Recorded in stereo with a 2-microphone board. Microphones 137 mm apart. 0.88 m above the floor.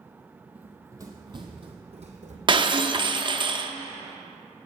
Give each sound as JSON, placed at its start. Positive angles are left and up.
{"t": 0.6, "sound": "running footsteps", "side_deg": -10, "distance_m": 1.5}
{"t": 2.5, "sound": "breaking glass", "side_deg": -35, "distance_m": 0.6}